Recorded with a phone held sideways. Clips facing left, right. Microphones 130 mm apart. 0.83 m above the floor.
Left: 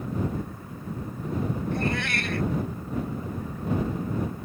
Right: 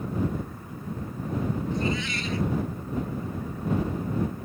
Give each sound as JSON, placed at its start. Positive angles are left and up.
{"t": 1.7, "sound": "a cat meowing", "side_deg": 70}